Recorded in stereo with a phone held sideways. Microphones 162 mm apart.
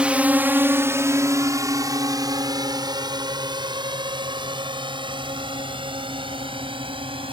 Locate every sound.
0.0 s a drone: 5° right (ahead or behind); by 7.3 s 35° right (ahead or behind)